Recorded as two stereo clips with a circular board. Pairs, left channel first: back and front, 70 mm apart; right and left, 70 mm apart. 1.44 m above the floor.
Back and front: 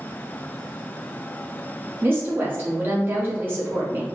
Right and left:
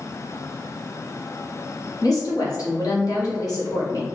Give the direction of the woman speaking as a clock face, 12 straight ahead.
2 o'clock.